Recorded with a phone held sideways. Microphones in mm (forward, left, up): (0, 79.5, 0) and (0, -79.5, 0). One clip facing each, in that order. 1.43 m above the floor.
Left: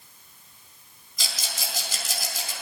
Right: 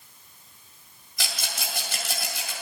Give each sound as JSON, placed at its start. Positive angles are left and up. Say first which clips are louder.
{"t": 1.2, "sound": "a rattle", "louder": "right 1 dB", "side_deg": -75, "distance_m": 3.5}